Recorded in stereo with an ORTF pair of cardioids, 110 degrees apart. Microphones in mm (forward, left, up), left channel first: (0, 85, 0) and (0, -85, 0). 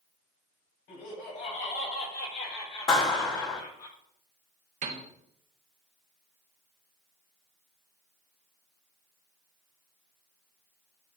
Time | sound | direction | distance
0.9 | laughter | 50° left | 5 m
2.9 | a clap | 30° left | 4 m
4.8 | a piano | 45° right | 1.6 m